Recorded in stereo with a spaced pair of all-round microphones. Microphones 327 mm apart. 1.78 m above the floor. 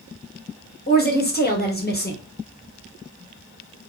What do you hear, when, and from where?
0.9 s a woman speaking: 30° left (ahead or behind), 0.7 m